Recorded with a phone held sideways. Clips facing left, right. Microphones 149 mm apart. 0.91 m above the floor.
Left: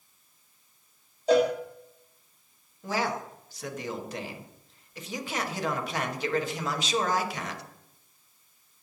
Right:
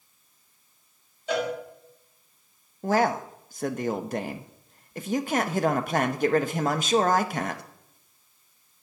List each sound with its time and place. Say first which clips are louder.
1.3 s a cowbell: left 6 dB; 35° left (ahead or behind), 2 m
2.8 s a man speaking: right 7 dB; 50° right (ahead or behind), 0.9 m